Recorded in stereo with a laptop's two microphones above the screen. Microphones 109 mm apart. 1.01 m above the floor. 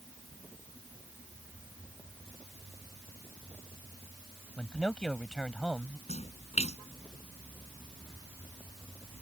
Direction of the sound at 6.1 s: 85° left.